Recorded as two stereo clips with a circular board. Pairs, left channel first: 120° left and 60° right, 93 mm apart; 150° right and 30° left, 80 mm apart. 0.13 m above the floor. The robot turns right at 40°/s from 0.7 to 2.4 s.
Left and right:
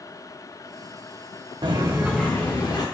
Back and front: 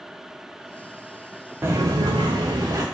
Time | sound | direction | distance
1.6 | footsteps | 30° right | 0.5 m